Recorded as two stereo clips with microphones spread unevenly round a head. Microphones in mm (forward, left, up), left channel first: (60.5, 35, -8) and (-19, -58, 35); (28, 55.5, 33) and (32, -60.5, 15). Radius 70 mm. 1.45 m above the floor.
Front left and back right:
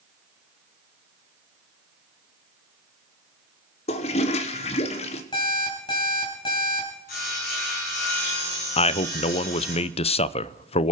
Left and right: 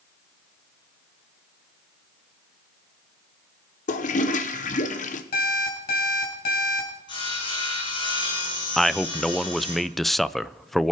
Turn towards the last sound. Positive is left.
turn(degrees=5)